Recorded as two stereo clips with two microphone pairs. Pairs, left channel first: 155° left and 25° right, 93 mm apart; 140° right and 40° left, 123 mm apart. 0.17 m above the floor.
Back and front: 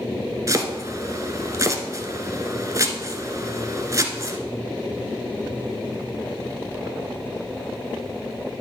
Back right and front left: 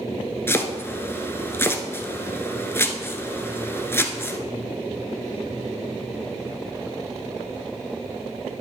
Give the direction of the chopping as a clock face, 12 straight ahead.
2 o'clock.